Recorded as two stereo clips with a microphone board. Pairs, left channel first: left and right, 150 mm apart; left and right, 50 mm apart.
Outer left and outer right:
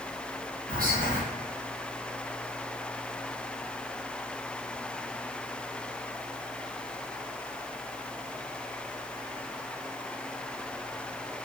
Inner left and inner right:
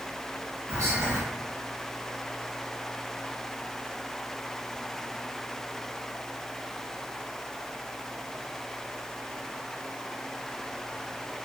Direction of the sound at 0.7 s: 70° right (ahead or behind).